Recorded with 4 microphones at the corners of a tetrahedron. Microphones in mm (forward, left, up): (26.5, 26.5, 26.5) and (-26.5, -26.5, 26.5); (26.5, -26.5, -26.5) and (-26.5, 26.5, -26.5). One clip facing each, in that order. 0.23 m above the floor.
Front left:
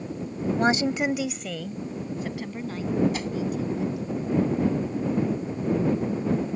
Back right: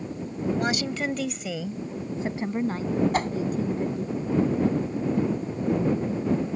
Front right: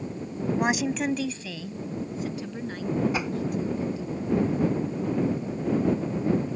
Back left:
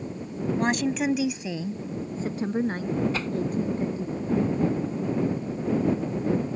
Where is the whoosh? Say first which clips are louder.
Back right 5 dB, front right 1 dB; 115° right.